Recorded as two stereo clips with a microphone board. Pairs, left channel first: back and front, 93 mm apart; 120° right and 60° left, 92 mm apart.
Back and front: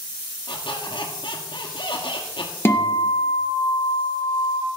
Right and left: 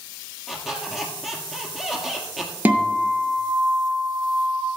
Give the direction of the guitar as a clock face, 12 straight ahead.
8 o'clock.